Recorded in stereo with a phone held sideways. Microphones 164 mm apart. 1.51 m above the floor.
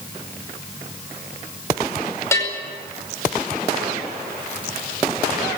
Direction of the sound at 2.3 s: 15° left (ahead or behind).